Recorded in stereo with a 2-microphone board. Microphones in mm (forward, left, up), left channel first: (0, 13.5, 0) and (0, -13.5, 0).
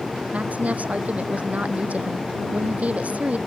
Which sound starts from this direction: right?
A woman speaking, at 0.3 s.